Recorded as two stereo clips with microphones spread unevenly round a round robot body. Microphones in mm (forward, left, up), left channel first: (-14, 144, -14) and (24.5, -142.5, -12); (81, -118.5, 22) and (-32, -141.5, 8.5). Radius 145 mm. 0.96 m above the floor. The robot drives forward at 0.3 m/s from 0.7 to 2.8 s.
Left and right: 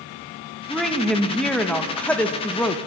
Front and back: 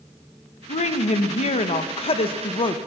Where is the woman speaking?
10° left, 1.2 m; by 2.8 s 20° left, 0.8 m.